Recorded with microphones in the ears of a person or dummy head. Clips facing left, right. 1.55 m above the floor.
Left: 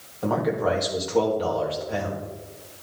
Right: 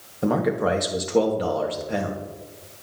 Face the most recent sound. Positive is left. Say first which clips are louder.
# right 2 dB
turn(degrees=-30)  # may be behind; listen again after turning